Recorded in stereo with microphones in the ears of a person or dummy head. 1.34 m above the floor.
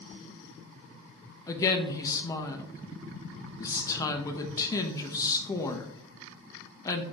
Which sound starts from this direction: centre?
A woman speaking, at 1.5 s.